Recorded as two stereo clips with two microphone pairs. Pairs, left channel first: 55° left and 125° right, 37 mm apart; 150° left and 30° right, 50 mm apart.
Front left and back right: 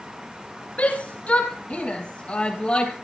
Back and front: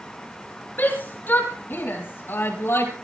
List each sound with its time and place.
0.8 s a shout: 100° left, 5 m; by 2.9 s 115° left, 4.5 m